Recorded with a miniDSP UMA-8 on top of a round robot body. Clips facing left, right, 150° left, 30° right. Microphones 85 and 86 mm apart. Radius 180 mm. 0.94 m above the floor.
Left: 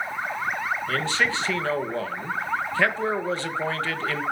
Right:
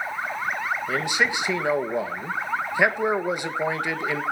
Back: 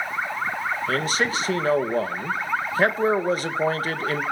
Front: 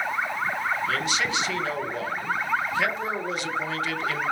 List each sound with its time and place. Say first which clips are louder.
0.9 s a man speaking: right 1 dB, back 3 dB; 165° right, 1.7 m